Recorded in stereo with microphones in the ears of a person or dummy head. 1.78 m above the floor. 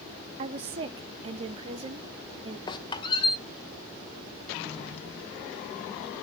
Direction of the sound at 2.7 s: 20° left (ahead or behind).